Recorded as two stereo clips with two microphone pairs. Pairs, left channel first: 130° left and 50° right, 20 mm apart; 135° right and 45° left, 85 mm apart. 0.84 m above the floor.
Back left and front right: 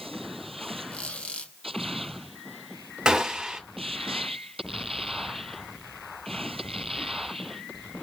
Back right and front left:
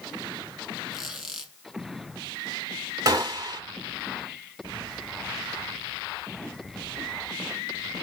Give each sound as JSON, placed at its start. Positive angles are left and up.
{"t": 0.9, "sound": "a squeak", "azimuth_deg": 135, "distance_m": 3.0}
{"t": 3.0, "sound": "a gunshot", "azimuth_deg": 0, "distance_m": 2.0}